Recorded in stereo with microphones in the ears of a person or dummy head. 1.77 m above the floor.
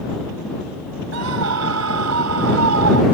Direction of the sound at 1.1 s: 80° right.